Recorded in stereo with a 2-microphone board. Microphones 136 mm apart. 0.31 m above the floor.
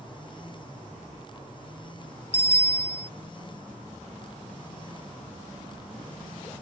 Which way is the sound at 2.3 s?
55° left (ahead or behind).